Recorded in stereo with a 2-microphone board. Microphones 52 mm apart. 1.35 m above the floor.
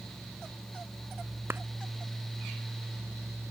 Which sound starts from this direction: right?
A clap, at 1.5 s.